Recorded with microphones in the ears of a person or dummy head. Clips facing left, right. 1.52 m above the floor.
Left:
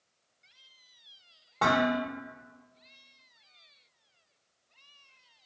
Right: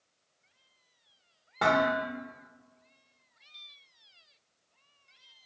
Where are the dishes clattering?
5° right (ahead or behind), 1.0 m.